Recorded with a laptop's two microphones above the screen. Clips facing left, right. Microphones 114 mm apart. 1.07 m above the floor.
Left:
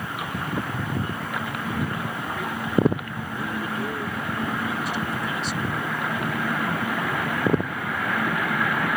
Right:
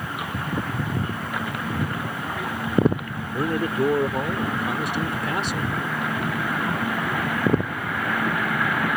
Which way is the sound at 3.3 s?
80° right.